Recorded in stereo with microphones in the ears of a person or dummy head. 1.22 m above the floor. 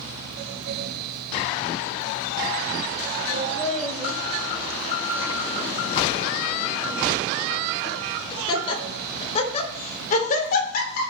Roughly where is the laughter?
Centre.